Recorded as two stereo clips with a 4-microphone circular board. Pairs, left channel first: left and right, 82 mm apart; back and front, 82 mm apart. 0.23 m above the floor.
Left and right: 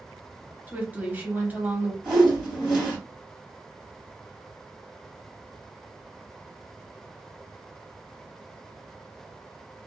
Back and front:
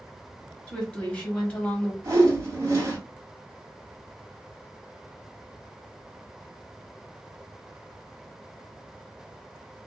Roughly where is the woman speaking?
Behind right.